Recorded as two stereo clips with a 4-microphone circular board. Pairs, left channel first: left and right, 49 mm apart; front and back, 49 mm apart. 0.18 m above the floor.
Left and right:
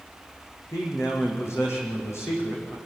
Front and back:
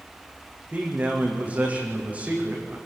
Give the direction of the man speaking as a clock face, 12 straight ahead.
8 o'clock.